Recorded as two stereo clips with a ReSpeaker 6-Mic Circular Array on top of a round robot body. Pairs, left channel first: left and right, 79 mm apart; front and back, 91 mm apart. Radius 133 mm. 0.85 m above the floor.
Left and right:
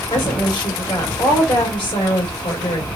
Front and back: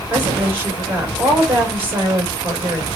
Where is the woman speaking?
110° left, 3.5 m.